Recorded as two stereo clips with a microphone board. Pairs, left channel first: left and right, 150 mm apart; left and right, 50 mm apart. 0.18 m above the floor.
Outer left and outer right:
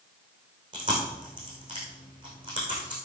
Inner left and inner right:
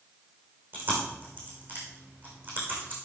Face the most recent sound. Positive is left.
turn(degrees=-30)  # may be behind; listen again after turning